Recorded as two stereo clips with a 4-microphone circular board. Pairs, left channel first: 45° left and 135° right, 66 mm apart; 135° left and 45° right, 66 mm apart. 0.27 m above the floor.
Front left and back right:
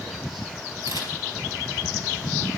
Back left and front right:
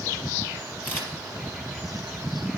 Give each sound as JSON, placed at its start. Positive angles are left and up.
{"t": 0.8, "sound": "a camera shutter", "azimuth_deg": -160, "distance_m": 4.5}